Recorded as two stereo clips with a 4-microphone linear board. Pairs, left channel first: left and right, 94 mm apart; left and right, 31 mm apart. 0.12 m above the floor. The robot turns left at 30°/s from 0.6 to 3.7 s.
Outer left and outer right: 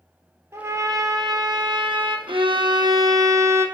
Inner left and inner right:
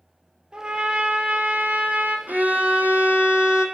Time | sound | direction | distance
0.5 | a trumpet | 35° right | 1.4 m
2.3 | a violin | 110° right | 1.0 m